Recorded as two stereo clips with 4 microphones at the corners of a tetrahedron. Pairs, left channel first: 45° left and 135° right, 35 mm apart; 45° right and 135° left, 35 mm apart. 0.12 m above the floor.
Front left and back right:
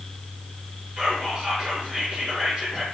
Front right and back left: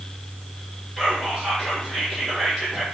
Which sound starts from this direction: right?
Whispering, at 1.0 s.